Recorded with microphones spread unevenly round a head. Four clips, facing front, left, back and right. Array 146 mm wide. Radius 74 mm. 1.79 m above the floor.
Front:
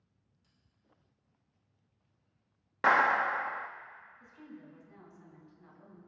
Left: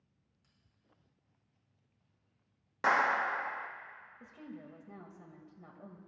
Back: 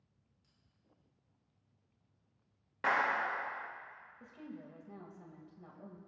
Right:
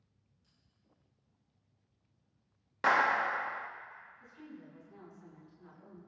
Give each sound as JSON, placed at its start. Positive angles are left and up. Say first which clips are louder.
{"t": 0.4, "sound": "a bell", "louder": "left 1 dB, front 2 dB", "azimuth_deg": 45, "distance_m": 6.0}
{"t": 2.8, "sound": "a clap", "louder": "right 1 dB, front 7 dB", "azimuth_deg": -5, "distance_m": 0.6}
{"t": 4.2, "sound": "a woman speaking", "louder": "left 4 dB, back 3 dB", "azimuth_deg": 120, "distance_m": 2.5}